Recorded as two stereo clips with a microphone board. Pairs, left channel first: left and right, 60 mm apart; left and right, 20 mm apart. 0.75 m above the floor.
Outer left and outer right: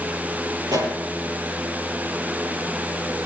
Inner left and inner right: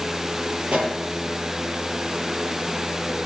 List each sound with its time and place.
0.7 s a pop: 85° right, 5 m